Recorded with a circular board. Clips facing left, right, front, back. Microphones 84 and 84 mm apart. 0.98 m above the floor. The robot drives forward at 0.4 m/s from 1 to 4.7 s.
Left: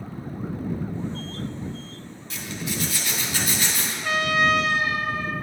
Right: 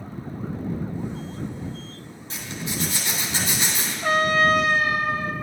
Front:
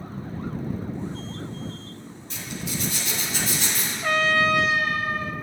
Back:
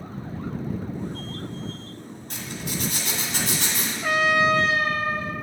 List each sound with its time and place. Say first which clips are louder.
2.3 s a zipper: left 1 dB, even; 155° right, 1.8 m; by 3.9 s 160° right, 2.5 m
4.0 s a trumpet: right 3 dB, back 1 dB; 95° right, 0.5 m; by 5.3 s 135° right, 0.6 m